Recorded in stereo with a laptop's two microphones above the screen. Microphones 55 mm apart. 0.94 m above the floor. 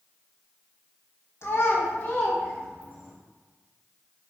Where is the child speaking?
50° left (ahead or behind), 0.5 m; by 3.1 s 10° left (ahead or behind), 1.1 m.